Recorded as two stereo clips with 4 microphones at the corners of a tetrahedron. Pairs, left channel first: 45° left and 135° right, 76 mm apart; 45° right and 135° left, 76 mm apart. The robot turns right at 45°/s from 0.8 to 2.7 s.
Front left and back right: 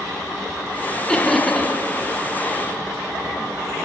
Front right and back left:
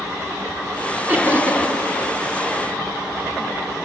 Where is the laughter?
100° left, 1.0 m; by 1.7 s 130° left, 1.0 m.